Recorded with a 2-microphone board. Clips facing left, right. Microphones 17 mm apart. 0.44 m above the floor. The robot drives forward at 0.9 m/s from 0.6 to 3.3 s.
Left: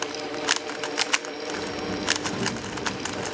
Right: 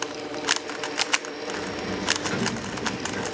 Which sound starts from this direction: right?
A sliding door, at 1.5 s.